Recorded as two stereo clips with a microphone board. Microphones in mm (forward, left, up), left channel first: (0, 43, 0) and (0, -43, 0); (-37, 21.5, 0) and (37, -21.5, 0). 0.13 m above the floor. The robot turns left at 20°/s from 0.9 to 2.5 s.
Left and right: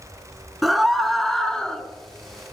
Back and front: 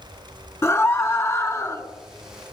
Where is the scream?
Straight behind, 1.8 m; by 1.8 s 160° left, 1.8 m.